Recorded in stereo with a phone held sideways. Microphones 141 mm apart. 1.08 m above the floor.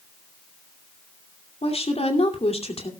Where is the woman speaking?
50° left (ahead or behind), 2.5 m.